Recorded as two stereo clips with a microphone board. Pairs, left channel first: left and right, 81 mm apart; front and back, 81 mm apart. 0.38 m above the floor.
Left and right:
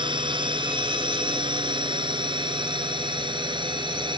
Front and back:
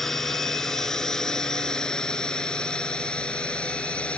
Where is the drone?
85° right; by 4.2 s 75° right.